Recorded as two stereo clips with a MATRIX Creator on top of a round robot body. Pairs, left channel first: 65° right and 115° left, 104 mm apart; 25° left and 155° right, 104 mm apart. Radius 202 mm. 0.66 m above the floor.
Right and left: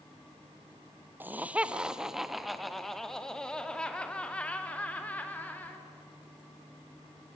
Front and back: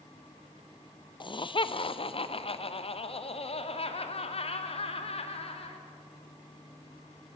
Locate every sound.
1.2 s laughter: 45° left, 1.3 m; by 5.8 s 5° left, 3 m